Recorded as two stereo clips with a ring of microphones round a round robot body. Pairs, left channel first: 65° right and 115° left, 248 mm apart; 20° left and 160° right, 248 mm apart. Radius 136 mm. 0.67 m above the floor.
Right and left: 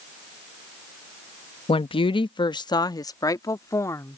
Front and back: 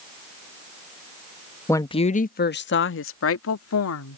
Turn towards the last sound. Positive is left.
turn(degrees=10)